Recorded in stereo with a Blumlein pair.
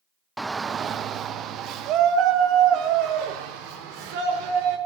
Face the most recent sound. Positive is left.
turn(degrees=-45)